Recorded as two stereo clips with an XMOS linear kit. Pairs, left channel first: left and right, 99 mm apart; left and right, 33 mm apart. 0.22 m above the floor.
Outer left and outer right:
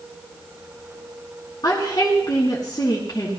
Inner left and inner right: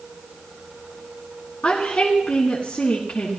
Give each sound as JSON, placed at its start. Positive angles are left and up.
{"t": 1.6, "sound": "a woman speaking", "side_deg": 45, "distance_m": 2.5}